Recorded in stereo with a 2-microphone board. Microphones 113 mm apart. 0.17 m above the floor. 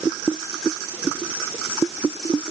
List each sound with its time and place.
Only background noise.